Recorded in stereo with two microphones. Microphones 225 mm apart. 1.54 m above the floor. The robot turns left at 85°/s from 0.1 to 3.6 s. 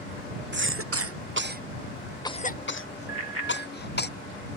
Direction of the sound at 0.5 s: 50° right (ahead or behind).